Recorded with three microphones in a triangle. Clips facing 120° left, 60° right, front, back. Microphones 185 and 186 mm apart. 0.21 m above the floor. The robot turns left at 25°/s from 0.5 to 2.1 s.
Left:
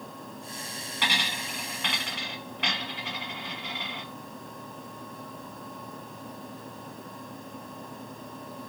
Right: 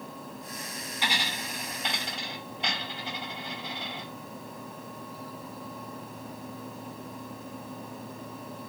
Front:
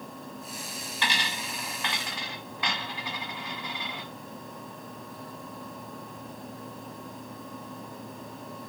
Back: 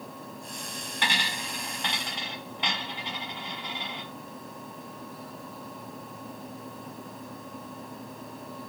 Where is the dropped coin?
140° left, 1.2 m; by 4.0 s 110° left, 1.2 m.